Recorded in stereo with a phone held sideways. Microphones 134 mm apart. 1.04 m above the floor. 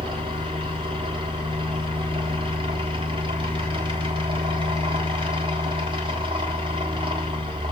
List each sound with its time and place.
0.0 s a fan: 40° right (ahead or behind), 1.4 m